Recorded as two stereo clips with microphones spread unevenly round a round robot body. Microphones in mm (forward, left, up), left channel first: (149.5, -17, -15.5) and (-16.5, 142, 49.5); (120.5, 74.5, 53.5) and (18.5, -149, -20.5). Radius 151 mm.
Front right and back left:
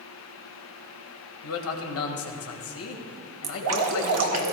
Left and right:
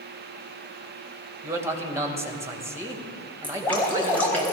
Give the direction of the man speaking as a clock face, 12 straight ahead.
1 o'clock.